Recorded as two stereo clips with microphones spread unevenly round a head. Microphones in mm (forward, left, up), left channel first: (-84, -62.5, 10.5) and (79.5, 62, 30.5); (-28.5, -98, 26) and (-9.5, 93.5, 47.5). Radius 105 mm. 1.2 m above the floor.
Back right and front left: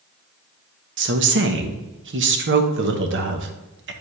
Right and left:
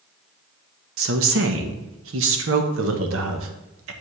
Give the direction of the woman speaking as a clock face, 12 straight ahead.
10 o'clock.